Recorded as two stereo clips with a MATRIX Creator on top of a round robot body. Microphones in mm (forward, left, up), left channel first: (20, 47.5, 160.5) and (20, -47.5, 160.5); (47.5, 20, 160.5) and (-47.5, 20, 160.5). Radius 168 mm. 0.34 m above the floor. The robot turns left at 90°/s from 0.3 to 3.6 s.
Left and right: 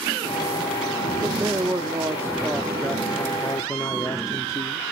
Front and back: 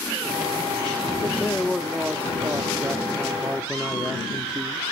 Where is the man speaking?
40° right, 1.1 m; by 4.8 s 105° left, 1.1 m.